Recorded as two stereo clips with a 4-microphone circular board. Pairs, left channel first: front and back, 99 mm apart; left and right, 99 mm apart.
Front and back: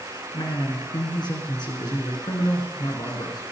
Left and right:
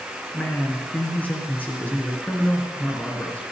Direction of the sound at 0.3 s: 20° left.